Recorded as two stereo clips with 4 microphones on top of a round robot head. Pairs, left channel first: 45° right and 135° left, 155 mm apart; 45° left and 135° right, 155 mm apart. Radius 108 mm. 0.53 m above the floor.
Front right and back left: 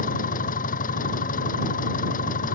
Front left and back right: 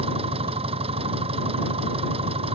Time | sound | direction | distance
0.0 | an engine running | 80° right | ?